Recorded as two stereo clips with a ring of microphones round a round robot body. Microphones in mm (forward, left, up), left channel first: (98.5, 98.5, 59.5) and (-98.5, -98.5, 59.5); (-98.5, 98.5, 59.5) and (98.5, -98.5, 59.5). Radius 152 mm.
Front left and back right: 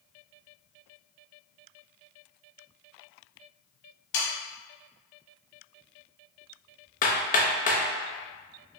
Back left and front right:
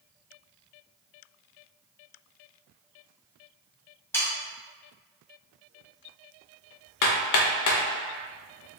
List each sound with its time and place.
4.1 s sawing: 55° left, 1.2 m
7.0 s hammering: 110° left, 0.6 m